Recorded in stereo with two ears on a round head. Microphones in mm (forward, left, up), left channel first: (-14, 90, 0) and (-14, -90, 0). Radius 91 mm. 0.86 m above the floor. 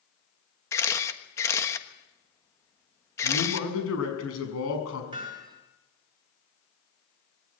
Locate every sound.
0.7 s a camera shutter: 15° left (ahead or behind), 1.3 m
3.2 s a man speaking: 85° left, 6.5 m
5.1 s hammering: 25° right (ahead or behind), 6.5 m